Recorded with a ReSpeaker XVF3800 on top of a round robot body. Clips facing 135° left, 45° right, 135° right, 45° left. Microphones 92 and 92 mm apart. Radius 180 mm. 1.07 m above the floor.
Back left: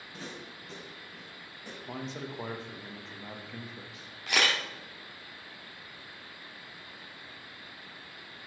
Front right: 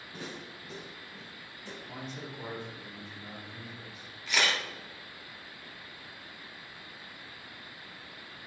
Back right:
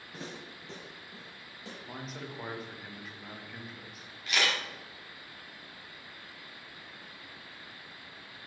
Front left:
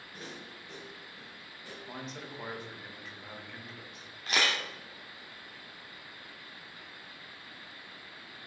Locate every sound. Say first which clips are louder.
0.1 s footsteps: front right 1 dB, back right 3 dB; 120° right, 3 m; by 1.8 s 150° right, 2.5 m
1.9 s a man speaking: back left 5 dB, even; 140° left, 1.2 m
4.3 s a camera shutter: back left 1 dB, even; 100° left, 1.1 m